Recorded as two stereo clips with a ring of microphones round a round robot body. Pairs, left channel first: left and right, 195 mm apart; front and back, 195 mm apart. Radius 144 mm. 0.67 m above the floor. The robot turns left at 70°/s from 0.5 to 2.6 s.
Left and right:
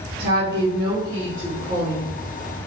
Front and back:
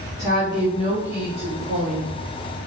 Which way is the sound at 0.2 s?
120° right.